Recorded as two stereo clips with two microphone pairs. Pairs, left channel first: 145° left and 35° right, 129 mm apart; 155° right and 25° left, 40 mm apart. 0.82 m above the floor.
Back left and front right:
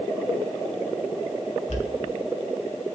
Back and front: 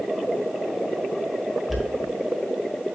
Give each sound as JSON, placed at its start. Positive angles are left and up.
{"t": 1.7, "sound": "a dropped coin", "azimuth_deg": 120, "distance_m": 1.5}